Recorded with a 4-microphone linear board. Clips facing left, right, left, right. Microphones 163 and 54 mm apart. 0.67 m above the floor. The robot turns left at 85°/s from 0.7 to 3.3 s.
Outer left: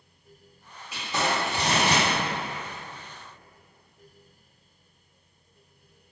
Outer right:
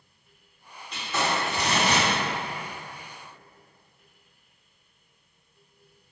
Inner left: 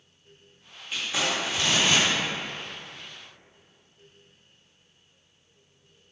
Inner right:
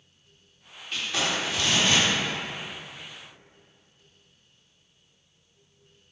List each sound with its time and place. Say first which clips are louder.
0.9 s crumpling: even, even; 10° left (ahead or behind), 0.9 m; by 2.1 s 25° left (ahead or behind), 0.9 m